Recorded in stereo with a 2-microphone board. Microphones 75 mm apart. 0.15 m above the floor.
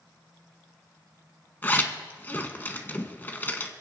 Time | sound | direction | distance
1.6 | a zipper | 25° left (ahead or behind) | 1.4 m